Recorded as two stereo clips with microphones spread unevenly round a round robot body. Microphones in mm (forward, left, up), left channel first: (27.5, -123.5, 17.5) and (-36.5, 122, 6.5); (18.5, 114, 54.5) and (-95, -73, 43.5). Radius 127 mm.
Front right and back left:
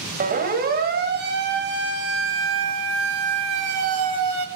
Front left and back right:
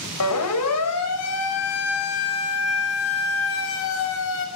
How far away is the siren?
About 5.5 m.